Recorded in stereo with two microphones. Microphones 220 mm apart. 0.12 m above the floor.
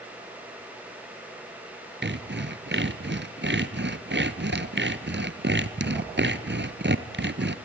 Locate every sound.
2.0 s sawing: 55° right (ahead or behind), 0.8 m